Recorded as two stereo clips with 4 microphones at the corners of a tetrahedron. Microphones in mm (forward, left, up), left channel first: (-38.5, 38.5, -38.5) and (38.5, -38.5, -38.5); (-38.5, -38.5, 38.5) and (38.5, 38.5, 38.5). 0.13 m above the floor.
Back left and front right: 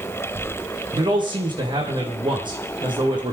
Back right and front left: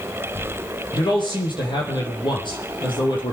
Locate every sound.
0.9 s a man speaking: 90° right, 5 m